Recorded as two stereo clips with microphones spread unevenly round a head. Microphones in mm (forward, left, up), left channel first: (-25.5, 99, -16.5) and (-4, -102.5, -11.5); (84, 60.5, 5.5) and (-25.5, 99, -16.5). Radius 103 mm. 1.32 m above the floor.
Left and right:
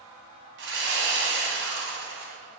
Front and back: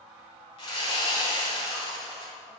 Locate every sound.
0.6 s sawing: 55° right, 2.5 m